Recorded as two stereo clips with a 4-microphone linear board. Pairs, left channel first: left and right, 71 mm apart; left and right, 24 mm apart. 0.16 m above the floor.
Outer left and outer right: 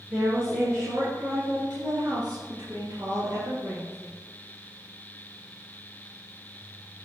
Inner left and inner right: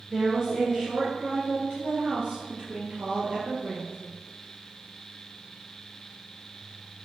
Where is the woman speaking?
35° right (ahead or behind), 2.5 m; by 4.0 s 55° right (ahead or behind), 3.5 m.